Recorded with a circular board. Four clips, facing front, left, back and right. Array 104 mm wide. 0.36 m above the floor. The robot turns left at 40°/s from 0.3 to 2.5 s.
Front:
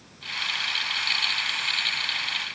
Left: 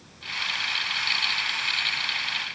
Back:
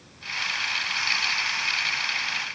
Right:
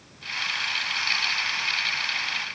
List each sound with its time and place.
Only background noise.